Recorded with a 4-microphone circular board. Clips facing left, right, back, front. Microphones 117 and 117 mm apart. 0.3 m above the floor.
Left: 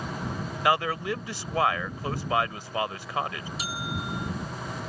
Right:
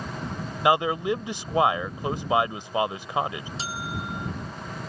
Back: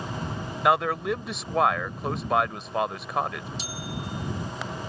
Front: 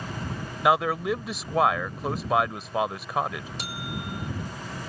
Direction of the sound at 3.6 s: 30° right.